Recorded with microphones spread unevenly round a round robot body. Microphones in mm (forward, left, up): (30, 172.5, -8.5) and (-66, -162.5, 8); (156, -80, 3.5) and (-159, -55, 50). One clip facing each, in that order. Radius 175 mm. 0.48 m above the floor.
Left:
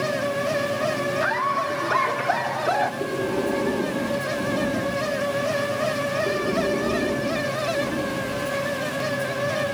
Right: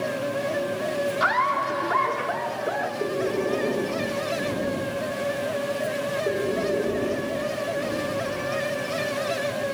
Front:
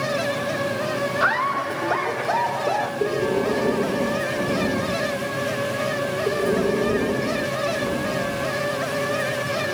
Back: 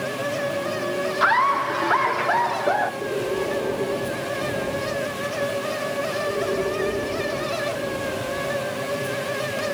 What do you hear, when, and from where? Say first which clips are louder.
1.2 s laughter: left 1 dB, back 1 dB; 100° right, 1.0 m; by 2.9 s 120° left, 1.2 m
3.0 s breathing: right 1 dB, front 5 dB; straight ahead, 7.5 m